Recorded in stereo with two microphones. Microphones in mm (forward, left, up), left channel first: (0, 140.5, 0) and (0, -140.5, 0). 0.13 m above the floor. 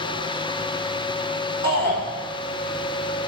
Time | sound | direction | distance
1.6 | a shout | 70° left (ahead or behind) | 4 m